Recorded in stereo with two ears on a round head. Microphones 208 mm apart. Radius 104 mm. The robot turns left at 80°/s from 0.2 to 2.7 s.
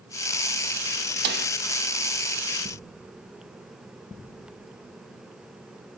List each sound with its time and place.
1.2 s a snare drum: 50° right (ahead or behind), 1.0 m; by 1.5 s 35° right (ahead or behind), 1.0 m